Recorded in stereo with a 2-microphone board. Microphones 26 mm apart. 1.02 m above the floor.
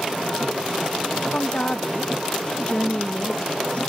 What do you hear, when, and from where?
1.3 s a woman speaking: 45° left (ahead or behind), 1.5 m